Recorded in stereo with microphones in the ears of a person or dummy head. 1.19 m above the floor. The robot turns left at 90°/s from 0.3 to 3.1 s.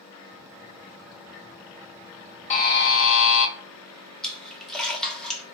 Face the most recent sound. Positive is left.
turn(degrees=10)  # may be behind; listen again after turning